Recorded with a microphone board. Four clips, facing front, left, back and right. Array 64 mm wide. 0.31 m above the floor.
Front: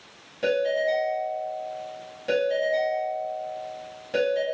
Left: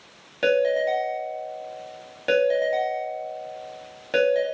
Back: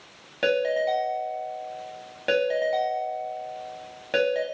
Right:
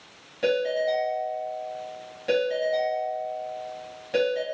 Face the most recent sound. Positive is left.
turn(degrees=145)